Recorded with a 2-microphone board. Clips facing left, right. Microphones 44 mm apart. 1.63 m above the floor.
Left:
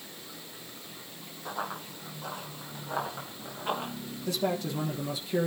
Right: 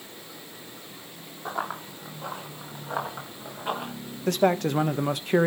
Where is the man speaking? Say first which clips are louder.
Right 8 dB; 65° right (ahead or behind), 1.2 m.